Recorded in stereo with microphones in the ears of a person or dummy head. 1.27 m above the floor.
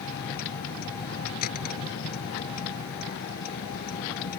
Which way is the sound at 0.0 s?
50° left (ahead or behind).